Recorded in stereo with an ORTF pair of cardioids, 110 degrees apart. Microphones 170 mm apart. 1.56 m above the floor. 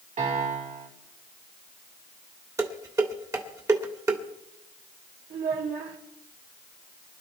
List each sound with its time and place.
0.2 s a piano: 50° right, 4.5 m
2.6 s dishes clattering: 20° right, 2.5 m
5.3 s a child speaking: 50° right, 3.5 m